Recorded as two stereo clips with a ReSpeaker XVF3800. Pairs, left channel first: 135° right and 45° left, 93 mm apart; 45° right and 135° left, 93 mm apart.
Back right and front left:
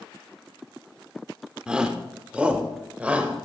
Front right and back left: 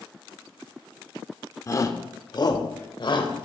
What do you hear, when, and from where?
1.7 s a shout: 30° right, 1.1 m